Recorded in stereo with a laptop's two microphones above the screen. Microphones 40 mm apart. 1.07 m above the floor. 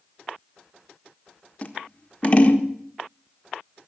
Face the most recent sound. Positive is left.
turn(degrees=30)  # may be behind; listen again after turning